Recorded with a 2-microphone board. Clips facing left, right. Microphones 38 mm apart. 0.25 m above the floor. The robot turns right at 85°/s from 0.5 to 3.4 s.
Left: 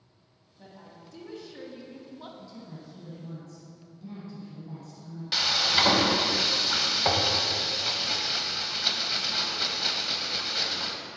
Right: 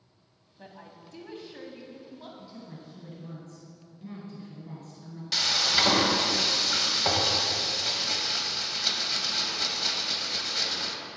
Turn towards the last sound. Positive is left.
turn(degrees=15)  # may be behind; listen again after turning